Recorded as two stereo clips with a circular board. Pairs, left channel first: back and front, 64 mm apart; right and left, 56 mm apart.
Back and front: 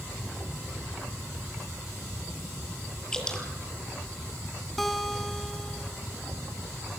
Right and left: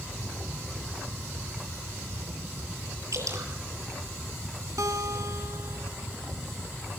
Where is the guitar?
90° left, 3.5 m.